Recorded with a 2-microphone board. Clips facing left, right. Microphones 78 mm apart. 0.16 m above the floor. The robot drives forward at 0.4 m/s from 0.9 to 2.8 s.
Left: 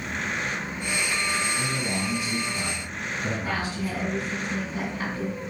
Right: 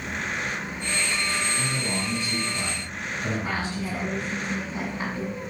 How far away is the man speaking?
About 1.8 m.